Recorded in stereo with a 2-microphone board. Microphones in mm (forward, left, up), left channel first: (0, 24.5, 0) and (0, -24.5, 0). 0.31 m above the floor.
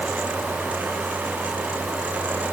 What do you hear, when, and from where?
Only background noise.